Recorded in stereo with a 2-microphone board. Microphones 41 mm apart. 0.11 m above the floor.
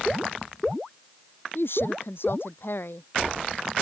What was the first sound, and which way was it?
A woman speaking, 65° left (ahead or behind).